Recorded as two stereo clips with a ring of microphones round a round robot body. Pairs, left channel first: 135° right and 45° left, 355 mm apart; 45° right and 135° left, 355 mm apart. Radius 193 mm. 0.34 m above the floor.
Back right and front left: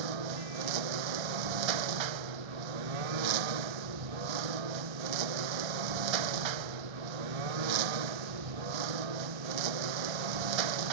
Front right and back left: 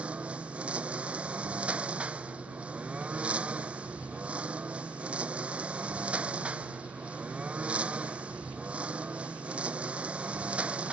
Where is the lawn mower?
50° left.